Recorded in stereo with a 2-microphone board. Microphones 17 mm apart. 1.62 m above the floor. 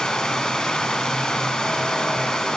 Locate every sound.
0.0 s running water: 50° left (ahead or behind), 3 m